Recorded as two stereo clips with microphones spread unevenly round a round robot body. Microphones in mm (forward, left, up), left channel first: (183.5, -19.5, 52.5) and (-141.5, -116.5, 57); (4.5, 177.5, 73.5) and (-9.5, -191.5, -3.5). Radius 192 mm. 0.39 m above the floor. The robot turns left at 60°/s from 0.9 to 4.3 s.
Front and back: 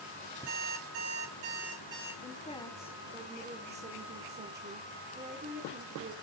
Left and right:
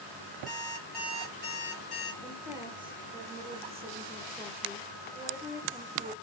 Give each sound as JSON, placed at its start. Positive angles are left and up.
{"t": 0.5, "sound": "an alarm clock", "azimuth_deg": 180, "distance_m": 4.5}
{"t": 2.2, "sound": "a woman speaking", "azimuth_deg": -20, "distance_m": 1.5}